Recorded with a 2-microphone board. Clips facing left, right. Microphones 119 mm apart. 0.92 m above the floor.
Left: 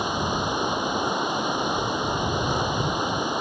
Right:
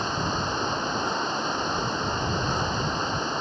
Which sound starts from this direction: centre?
Running water, at 0.0 s.